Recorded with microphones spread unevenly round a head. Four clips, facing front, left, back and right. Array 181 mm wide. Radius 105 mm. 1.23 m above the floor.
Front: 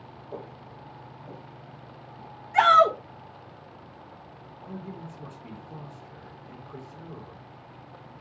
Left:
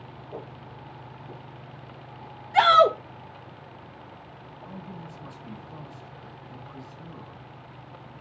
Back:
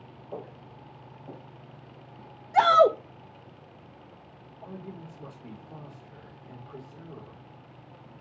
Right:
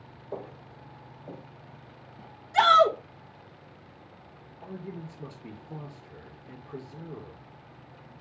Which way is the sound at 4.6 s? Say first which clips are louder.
Right 2 dB, front 2 dB; 105° right.